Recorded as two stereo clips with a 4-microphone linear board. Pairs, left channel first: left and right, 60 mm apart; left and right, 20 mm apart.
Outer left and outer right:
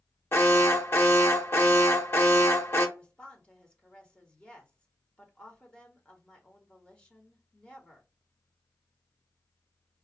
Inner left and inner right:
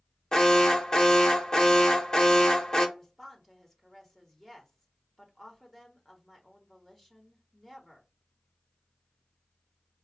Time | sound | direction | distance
0.3 | an alarm | 40° left (ahead or behind) | 0.7 m
3.0 | a woman speaking | 20° left (ahead or behind) | 1.1 m